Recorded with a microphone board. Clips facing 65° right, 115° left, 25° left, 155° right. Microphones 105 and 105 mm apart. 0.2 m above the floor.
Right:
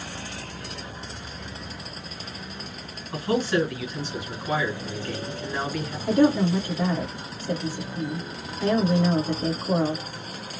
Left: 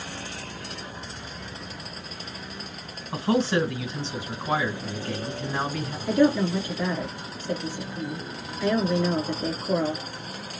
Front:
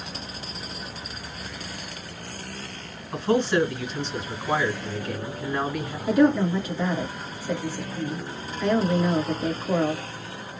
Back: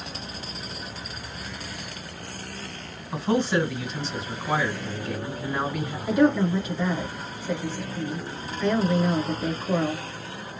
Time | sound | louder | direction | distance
3.1 | a man speaking | left 1 dB, front 1 dB | 120° left | 1.6 m
6.1 | a woman speaking | right 1 dB, front 1 dB | 70° right | 1.5 m